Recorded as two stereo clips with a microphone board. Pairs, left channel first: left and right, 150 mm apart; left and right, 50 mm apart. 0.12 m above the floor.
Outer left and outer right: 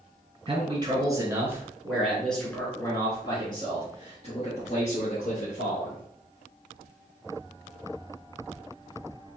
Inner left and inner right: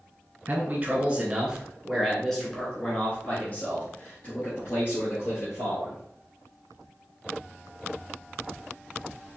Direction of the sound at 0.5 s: 35° right (ahead or behind).